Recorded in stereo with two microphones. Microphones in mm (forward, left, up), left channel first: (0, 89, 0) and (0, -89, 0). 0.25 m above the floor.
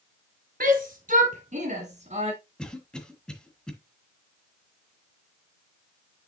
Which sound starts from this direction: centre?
A cough, at 2.6 s.